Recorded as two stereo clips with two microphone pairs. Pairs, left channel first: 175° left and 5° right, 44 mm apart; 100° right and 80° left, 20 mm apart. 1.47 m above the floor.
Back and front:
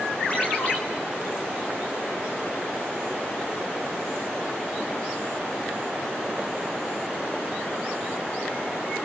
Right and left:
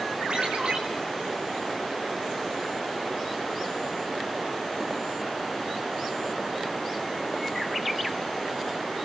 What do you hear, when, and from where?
0.3 s a ringtone: 120° left, 5 m